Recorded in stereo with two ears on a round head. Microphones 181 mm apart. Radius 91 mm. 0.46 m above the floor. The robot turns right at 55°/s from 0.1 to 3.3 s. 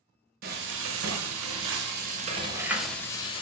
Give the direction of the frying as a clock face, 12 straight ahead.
4 o'clock.